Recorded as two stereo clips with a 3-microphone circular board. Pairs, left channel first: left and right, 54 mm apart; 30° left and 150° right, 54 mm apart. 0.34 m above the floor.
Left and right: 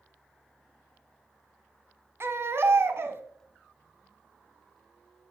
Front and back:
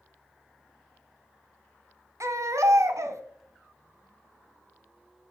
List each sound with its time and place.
2.2 s a baby crying: 130° right, 0.7 m